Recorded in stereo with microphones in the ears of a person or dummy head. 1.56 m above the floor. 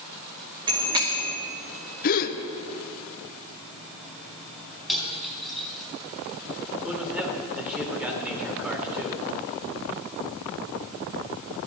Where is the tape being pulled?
No tape being pulled in this recording.